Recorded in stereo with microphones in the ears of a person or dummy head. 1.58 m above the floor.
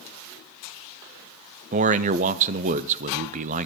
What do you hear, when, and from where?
1.7 s a man speaking: 40° right (ahead or behind), 0.5 m